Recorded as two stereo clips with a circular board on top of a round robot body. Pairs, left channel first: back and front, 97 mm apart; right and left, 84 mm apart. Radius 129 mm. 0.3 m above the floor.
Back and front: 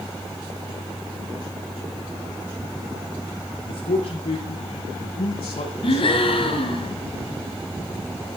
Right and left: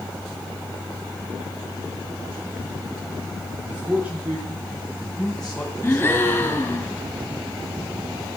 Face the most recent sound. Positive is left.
turn(degrees=-155)